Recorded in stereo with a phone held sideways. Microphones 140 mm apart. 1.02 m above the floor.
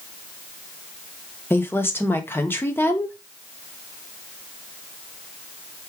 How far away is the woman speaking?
About 0.9 m.